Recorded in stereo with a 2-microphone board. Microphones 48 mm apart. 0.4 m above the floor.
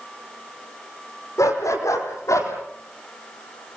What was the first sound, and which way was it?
A dog barking, 80° left.